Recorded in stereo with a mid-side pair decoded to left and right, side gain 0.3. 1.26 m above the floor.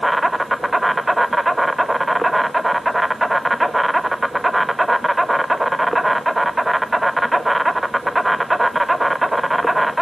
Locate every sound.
0.0 s an insect: 10° right, 1.7 m